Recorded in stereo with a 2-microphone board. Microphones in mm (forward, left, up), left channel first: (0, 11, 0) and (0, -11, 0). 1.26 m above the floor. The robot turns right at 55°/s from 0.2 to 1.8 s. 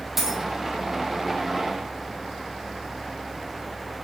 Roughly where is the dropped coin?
Centre.